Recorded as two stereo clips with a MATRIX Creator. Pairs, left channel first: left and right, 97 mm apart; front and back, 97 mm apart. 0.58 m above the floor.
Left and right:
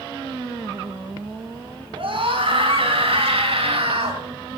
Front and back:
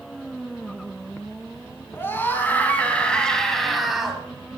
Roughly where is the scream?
Ahead right.